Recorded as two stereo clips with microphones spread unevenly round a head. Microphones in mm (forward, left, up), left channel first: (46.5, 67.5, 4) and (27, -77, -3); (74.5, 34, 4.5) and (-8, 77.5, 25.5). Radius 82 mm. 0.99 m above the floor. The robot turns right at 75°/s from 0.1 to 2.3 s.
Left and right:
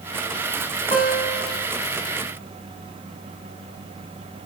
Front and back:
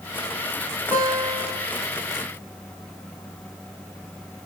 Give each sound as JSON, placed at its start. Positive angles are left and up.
{"t": 0.9, "sound": "a guitar", "azimuth_deg": 130, "distance_m": 1.1}